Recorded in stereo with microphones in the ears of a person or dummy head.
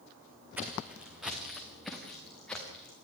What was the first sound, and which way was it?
Footsteps, 5° right (ahead or behind).